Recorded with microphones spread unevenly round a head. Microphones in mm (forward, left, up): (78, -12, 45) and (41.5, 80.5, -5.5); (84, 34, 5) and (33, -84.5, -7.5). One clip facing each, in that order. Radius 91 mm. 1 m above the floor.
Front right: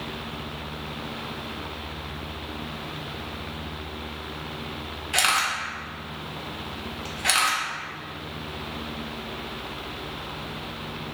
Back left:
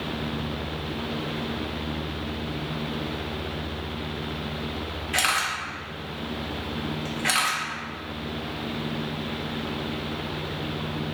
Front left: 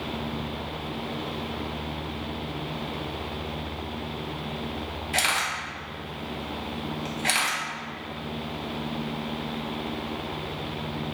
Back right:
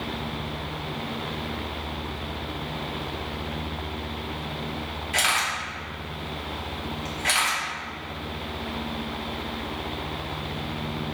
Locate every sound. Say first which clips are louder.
5.1 s a camera shutter: front right 2 dB, back right 1 dB; 10° left, 0.9 m